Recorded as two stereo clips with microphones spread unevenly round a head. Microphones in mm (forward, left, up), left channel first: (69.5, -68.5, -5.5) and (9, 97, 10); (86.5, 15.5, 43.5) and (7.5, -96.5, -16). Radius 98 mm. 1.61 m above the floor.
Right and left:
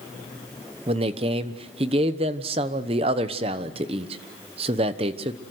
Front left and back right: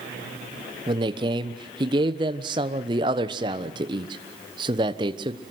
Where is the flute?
No flute in this recording.